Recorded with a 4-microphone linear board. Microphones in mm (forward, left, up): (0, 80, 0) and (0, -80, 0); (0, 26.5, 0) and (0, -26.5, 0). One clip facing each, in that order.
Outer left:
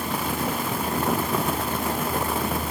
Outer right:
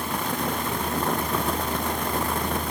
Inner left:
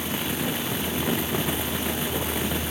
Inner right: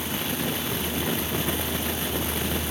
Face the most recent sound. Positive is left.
No sound to turn to.